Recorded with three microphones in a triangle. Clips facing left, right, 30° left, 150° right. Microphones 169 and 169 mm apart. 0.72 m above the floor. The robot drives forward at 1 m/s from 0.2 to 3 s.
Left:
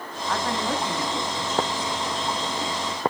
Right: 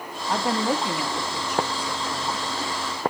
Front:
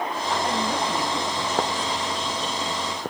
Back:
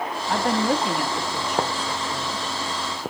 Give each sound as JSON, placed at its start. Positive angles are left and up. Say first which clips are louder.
{"t": 0.3, "sound": "a woman speaking", "louder": "right 3 dB, back 5 dB", "azimuth_deg": -150, "distance_m": 1.4}